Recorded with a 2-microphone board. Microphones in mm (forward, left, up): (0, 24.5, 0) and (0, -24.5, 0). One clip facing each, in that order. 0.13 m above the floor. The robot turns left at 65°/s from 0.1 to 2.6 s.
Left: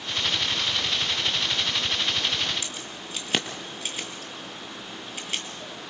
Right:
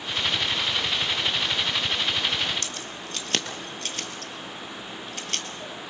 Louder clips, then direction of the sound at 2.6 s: Right 1 dB; 10° left (ahead or behind).